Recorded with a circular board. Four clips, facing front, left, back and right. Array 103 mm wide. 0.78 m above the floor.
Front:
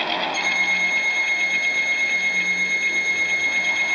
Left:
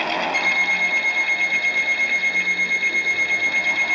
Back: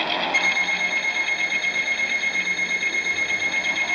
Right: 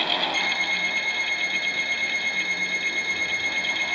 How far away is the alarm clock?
About 3.5 m.